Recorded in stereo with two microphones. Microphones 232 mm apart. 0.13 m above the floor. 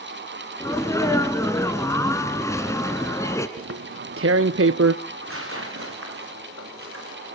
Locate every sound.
0.6 s a sneeze: 15° left (ahead or behind), 1.3 m
3.6 s tearing paper: 75° right (ahead or behind), 0.6 m
5.0 s tearing paper: 80° right, 5.5 m